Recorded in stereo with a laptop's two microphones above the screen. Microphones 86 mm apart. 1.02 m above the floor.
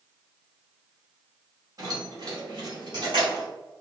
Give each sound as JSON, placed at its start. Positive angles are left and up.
{"t": 1.8, "sound": "keys jangling", "side_deg": -45, "distance_m": 1.4}